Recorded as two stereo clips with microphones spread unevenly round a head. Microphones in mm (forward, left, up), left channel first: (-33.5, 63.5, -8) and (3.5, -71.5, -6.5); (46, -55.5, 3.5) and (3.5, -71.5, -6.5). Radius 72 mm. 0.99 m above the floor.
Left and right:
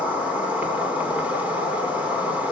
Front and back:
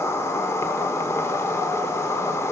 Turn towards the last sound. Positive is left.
turn(degrees=5)